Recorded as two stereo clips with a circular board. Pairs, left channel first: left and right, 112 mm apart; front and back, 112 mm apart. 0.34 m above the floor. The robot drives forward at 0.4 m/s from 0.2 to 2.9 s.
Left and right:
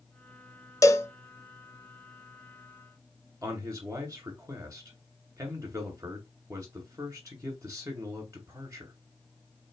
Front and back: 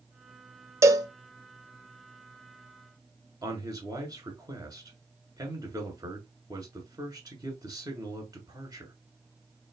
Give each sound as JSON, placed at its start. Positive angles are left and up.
{"t": 0.8, "sound": "a cowbell", "azimuth_deg": 135, "distance_m": 0.6}
{"t": 3.4, "sound": "a man speaking", "azimuth_deg": -145, "distance_m": 2.0}